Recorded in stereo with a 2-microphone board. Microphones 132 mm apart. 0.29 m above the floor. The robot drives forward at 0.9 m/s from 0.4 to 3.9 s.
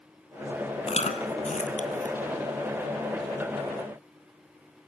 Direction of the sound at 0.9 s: 55° left (ahead or behind).